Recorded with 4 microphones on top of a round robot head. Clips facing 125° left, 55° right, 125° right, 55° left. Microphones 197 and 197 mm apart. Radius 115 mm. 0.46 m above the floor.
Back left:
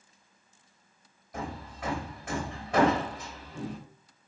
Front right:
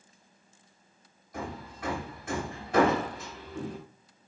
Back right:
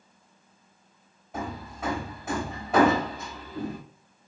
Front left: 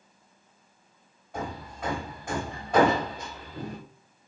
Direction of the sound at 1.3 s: 150° left.